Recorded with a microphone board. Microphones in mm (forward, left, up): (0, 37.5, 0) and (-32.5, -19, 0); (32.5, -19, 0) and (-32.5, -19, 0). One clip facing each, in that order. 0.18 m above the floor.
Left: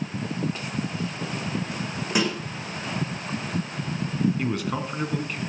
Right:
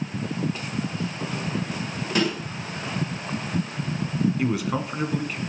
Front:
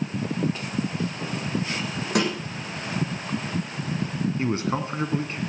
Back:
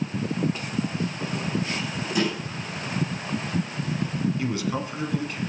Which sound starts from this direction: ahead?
A snare drum, at 2.1 s.